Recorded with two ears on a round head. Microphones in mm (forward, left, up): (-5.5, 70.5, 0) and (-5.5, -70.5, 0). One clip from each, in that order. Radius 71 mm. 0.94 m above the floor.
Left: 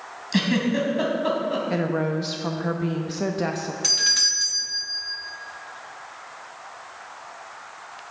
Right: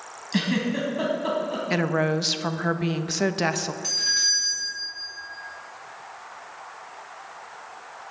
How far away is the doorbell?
About 1.5 m.